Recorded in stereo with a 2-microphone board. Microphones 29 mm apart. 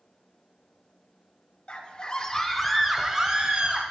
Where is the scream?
40° left (ahead or behind), 1.4 m; by 3.8 s 35° right (ahead or behind), 1.9 m.